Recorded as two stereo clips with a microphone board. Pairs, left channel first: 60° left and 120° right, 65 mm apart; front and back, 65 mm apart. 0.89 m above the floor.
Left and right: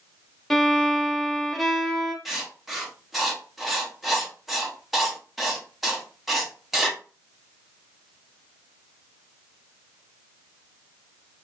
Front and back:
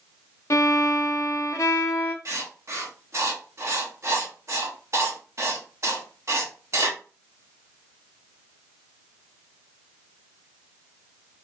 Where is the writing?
155° left, 0.7 m.